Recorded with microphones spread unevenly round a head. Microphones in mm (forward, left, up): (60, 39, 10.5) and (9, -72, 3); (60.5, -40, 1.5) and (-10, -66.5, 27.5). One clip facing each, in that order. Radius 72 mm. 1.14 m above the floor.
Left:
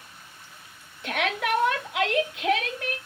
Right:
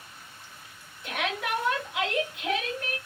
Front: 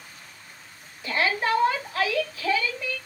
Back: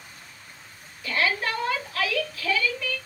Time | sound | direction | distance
1.0 | a shout | 65° left | 1.0 m